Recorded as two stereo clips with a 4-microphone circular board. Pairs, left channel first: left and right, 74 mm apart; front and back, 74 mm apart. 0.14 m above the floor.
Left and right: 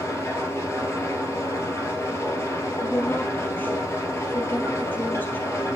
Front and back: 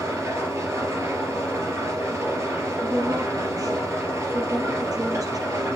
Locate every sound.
0.0 s an engine running: 135° left, 2.5 m
2.8 s a woman speaking: 150° left, 3 m